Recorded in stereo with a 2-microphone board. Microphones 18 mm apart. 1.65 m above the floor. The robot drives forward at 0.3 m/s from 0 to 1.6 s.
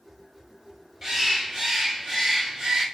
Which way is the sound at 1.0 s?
30° right (ahead or behind).